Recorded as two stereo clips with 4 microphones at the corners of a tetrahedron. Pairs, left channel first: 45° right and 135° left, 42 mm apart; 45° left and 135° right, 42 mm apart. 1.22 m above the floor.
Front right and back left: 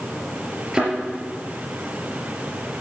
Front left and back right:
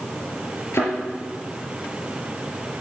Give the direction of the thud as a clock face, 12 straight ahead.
10 o'clock.